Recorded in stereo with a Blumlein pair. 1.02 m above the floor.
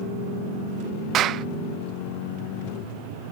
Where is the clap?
30° right.